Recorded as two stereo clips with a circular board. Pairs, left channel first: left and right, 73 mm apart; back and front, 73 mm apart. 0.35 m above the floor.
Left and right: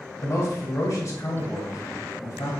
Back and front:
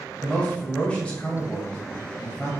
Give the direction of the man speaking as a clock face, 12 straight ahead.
8 o'clock.